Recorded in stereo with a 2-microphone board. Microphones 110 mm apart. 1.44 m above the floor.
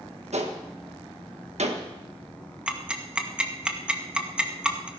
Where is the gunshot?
80° right, 1.6 m.